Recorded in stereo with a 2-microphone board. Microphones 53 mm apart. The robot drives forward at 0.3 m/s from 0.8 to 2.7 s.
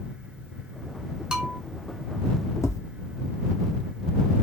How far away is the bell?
About 0.8 m.